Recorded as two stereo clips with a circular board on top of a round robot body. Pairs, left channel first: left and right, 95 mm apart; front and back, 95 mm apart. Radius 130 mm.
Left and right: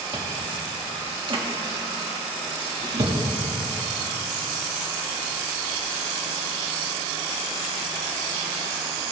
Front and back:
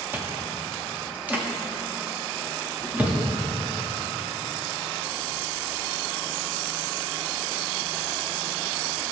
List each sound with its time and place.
0.1 s chewing: 110° right, 1.5 m